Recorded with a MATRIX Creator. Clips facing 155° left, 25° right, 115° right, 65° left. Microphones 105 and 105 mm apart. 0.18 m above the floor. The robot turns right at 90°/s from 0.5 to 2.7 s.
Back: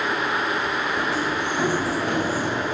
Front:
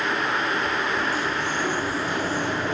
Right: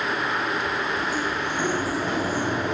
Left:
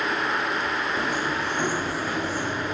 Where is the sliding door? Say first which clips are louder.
Back 1 dB, even; 80° left, 5.5 m; by 2.8 s 125° right, 5.5 m.